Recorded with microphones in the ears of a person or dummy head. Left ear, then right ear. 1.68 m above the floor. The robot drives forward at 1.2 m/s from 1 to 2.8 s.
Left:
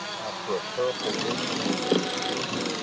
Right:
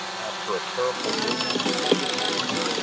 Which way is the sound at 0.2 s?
50° right (ahead or behind).